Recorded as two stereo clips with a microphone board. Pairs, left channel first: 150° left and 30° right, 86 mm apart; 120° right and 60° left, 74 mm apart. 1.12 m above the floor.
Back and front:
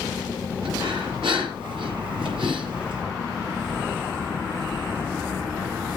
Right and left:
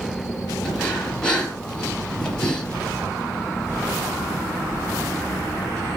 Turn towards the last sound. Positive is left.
turn(degrees=-40)